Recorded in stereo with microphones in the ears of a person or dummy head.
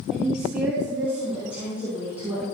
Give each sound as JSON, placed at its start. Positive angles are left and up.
{"t": 0.1, "sound": "a woman speaking", "side_deg": -5, "distance_m": 2.5}